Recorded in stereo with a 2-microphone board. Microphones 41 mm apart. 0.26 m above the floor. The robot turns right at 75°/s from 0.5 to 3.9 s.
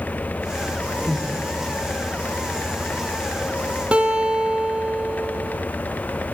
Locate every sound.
1.0 s breathing: centre (ahead or behind), 3.5 m; by 1.4 s 30° right (ahead or behind), 3.5 m
3.9 s a guitar: 30° right (ahead or behind), 0.6 m